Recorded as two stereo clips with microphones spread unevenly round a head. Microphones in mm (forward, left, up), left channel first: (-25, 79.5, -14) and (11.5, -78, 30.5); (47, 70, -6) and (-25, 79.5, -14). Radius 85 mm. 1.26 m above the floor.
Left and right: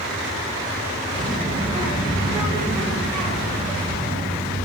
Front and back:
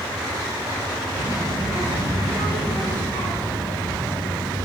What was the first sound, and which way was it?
A child speaking, 145° right.